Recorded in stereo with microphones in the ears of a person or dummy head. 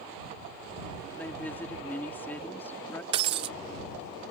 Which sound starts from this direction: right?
Breaking glass, at 3.1 s.